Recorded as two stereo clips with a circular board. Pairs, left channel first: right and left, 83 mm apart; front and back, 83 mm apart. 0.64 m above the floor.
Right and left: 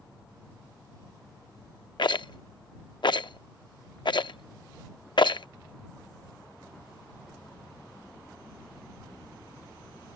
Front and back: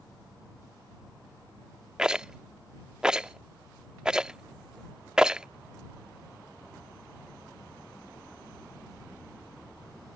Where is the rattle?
100° right.